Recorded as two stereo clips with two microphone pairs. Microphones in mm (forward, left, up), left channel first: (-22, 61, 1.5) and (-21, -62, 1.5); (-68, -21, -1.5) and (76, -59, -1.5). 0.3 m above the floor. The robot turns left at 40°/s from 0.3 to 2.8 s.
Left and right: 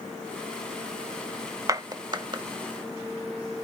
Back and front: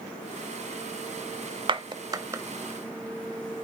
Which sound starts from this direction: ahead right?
A clap, at 1.7 s.